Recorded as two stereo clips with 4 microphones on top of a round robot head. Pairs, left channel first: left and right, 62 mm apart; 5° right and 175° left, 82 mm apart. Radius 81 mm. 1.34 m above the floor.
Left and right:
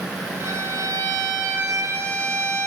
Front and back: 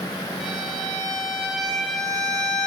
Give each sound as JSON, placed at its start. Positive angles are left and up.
{"t": 0.4, "sound": "a violin", "azimuth_deg": -90, "distance_m": 1.0}